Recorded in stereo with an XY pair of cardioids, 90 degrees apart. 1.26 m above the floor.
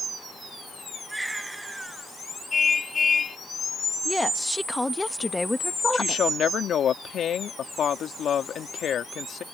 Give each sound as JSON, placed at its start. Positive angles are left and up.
{"t": 1.1, "sound": "a baby crying", "azimuth_deg": -10}
{"t": 2.5, "sound": "a car horn", "azimuth_deg": 40}
{"t": 4.0, "sound": "a woman speaking", "azimuth_deg": 10}
{"t": 5.9, "sound": "a woman speaking", "azimuth_deg": 65}